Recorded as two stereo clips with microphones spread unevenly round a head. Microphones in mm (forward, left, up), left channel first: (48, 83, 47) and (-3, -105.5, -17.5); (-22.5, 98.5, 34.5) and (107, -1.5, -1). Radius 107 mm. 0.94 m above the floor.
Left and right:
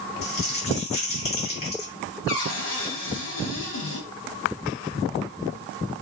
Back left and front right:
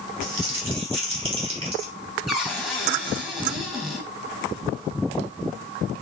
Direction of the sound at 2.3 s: 50° left.